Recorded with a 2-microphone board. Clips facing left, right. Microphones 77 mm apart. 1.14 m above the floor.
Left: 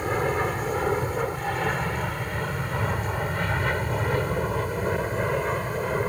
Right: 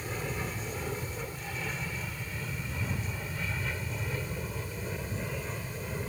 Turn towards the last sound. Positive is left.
turn(degrees=60)  # may be behind; listen again after turning